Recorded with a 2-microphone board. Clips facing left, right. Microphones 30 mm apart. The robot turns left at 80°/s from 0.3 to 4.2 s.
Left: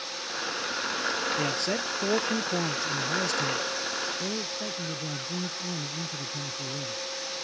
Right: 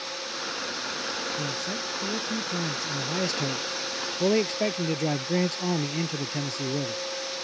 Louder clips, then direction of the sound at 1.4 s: Left 3 dB; 135° left.